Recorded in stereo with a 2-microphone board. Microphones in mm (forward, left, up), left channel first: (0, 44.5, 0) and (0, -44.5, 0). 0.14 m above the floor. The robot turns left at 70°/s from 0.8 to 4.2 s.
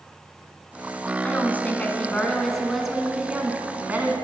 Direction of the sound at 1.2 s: 20° left (ahead or behind).